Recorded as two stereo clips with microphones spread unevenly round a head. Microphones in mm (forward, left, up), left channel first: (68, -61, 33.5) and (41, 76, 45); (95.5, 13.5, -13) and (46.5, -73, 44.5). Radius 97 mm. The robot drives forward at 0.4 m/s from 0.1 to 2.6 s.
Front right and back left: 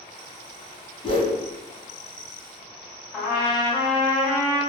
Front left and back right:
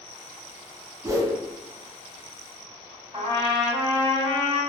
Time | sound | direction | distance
1.0 | a whoosh | 35° right | 0.7 m
3.1 | a trumpet | straight behind | 1.6 m